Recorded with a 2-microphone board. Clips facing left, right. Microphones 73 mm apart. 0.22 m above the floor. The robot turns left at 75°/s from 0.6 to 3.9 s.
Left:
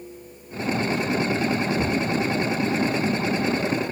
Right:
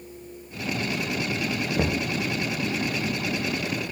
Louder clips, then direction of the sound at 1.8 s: Left 2 dB; 60° right (ahead or behind).